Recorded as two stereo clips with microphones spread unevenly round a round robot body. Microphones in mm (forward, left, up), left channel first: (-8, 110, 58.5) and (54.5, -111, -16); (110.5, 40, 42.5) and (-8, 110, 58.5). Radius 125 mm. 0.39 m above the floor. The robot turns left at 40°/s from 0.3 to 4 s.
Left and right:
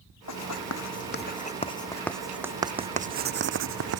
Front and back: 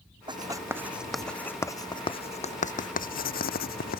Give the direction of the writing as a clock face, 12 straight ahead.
9 o'clock.